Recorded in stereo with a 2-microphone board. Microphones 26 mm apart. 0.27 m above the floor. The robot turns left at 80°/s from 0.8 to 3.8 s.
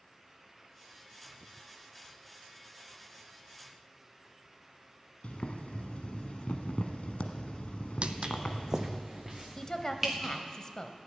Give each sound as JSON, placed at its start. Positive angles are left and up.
{"t": 5.2, "sound": "boiling", "side_deg": 65, "distance_m": 1.0}
{"t": 8.0, "sound": "footsteps", "side_deg": -55, "distance_m": 0.7}
{"t": 9.6, "sound": "a woman speaking", "side_deg": 30, "distance_m": 1.0}